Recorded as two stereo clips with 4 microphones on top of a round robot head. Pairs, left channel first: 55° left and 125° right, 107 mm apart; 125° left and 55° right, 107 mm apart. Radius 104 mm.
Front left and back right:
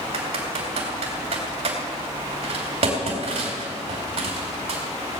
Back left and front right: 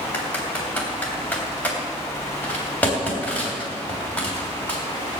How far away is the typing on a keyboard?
About 2.5 m.